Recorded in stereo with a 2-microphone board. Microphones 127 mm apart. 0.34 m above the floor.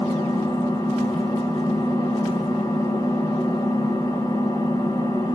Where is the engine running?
35° left (ahead or behind), 0.7 m.